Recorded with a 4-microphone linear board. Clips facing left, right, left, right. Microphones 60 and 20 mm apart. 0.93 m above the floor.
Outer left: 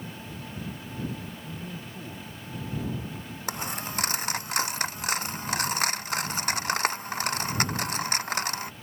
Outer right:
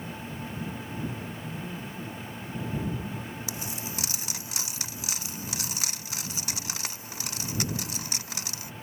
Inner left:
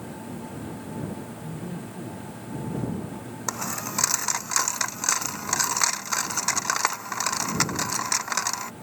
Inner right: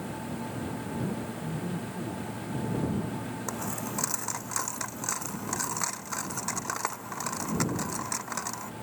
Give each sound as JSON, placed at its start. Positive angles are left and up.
{"t": 1.4, "sound": "a man speaking", "side_deg": 5}
{"t": 3.5, "sound": "a dropped coin", "side_deg": 50}